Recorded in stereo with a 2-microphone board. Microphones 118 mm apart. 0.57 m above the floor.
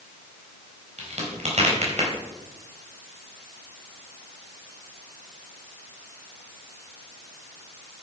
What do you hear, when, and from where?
1.0 s a crack: 70° right (ahead or behind), 4 m